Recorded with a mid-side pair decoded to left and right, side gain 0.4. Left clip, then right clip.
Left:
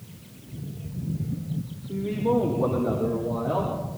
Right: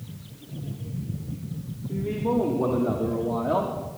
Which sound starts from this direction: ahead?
A man speaking, at 1.9 s.